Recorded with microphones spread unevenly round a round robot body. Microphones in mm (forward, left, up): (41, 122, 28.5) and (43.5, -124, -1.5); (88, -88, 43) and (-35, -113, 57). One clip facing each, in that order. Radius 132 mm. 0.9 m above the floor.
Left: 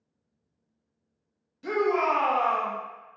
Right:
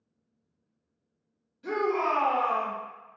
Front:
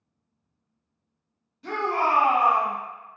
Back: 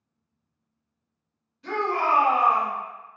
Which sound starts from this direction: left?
A shout, at 1.6 s.